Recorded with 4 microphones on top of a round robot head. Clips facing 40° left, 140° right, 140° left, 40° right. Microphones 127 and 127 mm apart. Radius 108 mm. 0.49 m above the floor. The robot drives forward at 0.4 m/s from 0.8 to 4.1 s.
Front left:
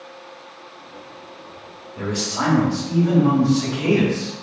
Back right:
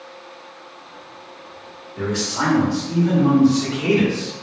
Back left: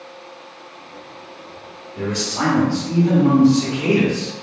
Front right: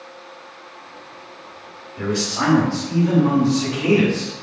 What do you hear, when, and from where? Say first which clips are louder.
2.0 s a man speaking: back right 1 dB, even; 130° left, 1.6 m; by 4.3 s 150° left, 2 m